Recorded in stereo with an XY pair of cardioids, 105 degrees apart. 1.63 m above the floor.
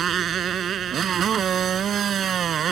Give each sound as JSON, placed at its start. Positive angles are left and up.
{"t": 0.0, "sound": "a motorcycle", "azimuth_deg": -55}